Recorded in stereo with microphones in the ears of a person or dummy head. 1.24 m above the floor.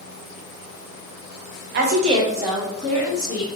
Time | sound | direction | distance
1.7 | a woman speaking | 60° right (ahead or behind) | 0.8 m